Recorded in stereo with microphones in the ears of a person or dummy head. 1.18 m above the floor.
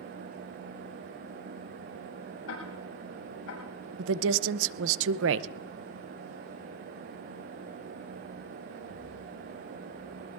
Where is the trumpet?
I don't hear a trumpet.